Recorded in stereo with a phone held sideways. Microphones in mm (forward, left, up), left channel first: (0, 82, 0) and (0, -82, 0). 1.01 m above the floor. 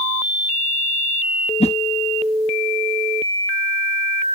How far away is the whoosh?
About 0.9 m.